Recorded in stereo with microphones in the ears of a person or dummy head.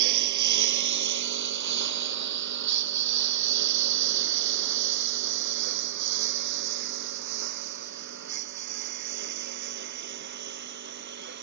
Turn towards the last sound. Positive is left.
turn(degrees=-60)  # may be behind; listen again after turning